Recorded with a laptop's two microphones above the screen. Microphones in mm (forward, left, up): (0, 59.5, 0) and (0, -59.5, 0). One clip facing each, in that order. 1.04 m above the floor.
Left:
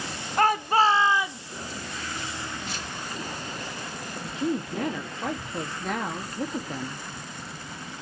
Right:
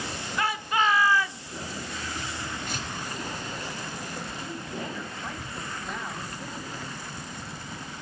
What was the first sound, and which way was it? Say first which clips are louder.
A shout: left 6 dB; 45° left (ahead or behind).